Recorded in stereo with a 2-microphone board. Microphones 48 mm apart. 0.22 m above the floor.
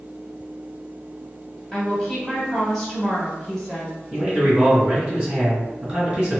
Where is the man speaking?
20° right (ahead or behind), 1.8 m.